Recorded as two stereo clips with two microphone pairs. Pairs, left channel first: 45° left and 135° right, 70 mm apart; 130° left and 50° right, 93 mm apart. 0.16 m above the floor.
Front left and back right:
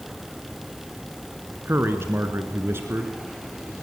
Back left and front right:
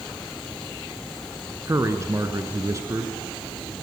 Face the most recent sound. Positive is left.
turn(degrees=-95)